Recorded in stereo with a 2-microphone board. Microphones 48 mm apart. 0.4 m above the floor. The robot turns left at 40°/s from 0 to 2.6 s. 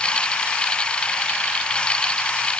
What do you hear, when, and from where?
Only background noise.